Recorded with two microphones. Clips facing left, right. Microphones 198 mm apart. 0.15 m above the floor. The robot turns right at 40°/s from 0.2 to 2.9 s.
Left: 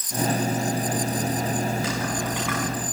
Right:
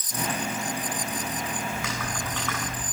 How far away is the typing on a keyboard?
About 8 m.